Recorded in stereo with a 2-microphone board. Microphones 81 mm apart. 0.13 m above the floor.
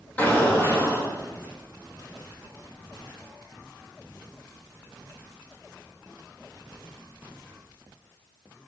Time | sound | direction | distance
0.2 | an explosion | 20° left (ahead or behind) | 5.5 m